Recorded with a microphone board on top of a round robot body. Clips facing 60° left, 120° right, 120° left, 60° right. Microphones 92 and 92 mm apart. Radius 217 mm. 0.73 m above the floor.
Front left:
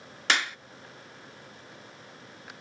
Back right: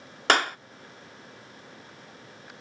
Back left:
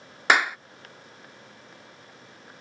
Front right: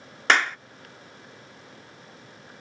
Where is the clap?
160° right.